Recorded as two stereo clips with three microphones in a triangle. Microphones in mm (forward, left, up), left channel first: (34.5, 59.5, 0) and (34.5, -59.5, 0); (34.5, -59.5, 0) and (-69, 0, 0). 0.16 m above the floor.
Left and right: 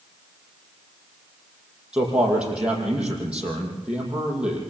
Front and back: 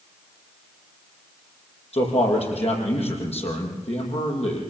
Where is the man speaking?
10° right, 7 m.